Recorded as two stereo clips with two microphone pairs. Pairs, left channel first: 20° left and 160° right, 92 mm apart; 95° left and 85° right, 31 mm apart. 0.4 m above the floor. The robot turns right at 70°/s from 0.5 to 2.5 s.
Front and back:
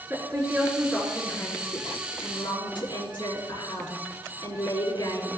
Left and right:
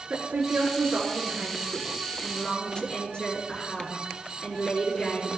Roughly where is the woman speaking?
Right.